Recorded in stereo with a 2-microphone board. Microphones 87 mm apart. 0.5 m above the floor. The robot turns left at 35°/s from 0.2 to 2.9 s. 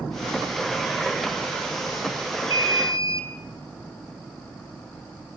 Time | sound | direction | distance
2.5 | an alarm | 55° left (ahead or behind) | 1.7 m